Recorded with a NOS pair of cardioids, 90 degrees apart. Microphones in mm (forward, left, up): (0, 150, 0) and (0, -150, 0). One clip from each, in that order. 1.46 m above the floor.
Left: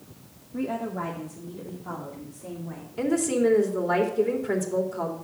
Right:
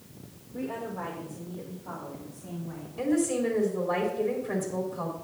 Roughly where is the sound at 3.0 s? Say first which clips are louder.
Left 3 dB; ahead left.